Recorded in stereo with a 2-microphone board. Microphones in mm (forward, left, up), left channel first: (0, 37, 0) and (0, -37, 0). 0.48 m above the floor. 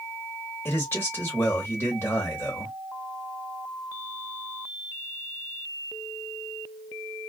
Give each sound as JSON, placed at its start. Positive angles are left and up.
{"t": 0.7, "sound": "a man speaking", "side_deg": 35, "distance_m": 1.4}